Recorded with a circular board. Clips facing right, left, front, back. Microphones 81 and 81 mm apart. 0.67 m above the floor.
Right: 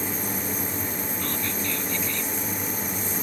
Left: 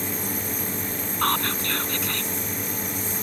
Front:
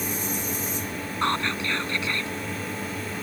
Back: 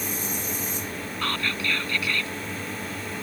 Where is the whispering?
65° left.